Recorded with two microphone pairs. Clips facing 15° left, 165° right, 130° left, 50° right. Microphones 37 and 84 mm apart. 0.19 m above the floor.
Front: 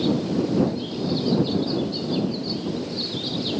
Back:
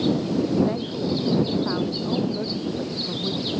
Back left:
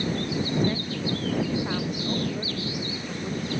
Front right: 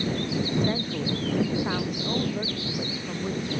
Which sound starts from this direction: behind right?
A woman speaking, at 0.7 s.